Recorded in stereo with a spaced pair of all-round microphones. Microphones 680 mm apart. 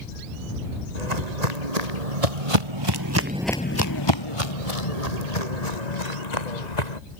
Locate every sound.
0.9 s footsteps: 75° right (ahead or behind); by 7.0 s 80° left